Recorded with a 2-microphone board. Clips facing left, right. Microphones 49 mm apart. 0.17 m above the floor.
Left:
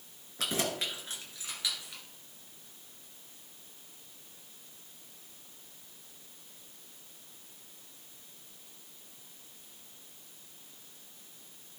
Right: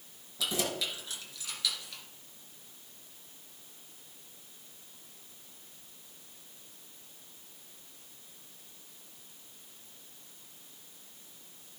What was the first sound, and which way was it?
Keys jangling, 45° left (ahead or behind).